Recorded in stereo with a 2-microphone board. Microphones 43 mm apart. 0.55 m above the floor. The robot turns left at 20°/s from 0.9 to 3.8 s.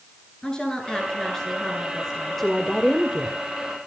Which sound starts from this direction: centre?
A woman speaking, at 2.4 s.